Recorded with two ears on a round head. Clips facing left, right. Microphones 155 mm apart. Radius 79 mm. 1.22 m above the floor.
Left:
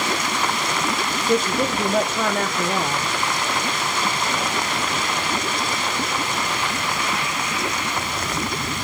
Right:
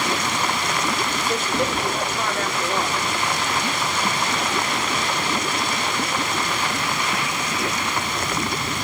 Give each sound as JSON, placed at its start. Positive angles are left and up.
{"t": 1.2, "sound": "a woman speaking", "side_deg": 75, "distance_m": 1.6}